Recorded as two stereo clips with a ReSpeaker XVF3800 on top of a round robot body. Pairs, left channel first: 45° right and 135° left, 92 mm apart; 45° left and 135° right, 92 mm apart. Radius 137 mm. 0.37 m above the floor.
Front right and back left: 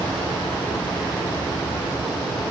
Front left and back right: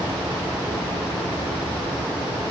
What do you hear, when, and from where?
Only background noise.